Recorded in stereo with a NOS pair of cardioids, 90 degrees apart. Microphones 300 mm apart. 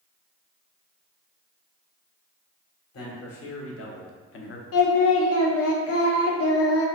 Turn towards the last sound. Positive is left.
turn(degrees=50)